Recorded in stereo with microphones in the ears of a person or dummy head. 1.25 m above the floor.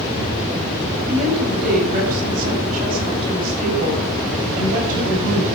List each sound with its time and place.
1.0 s a woman speaking: 50° right (ahead or behind), 8.5 m